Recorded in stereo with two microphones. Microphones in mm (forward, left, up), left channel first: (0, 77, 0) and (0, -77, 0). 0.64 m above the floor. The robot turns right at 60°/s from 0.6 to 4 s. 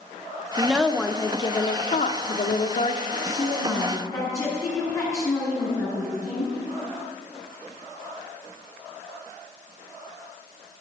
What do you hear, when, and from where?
0.6 s a woman speaking: 10° right, 1.0 m; by 3.0 s 135° left, 1.0 m
3.1 s a woman speaking: 35° right, 5.5 m; by 6.5 s 20° left, 5.5 m